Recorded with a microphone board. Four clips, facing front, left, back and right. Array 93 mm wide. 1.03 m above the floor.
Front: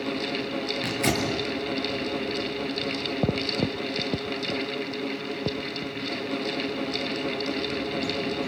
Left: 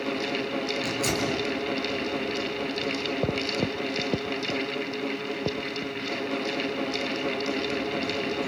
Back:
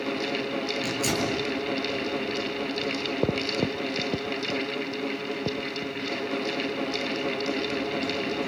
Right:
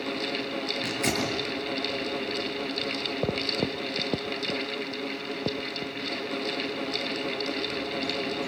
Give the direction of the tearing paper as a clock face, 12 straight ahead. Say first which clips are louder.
Left 1 dB, front 2 dB; 1 o'clock.